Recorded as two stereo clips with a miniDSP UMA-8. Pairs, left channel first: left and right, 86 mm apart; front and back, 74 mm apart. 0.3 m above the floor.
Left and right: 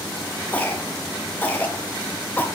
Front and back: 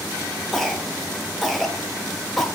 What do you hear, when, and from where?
0.5 s a cough: 85° left, 1.0 m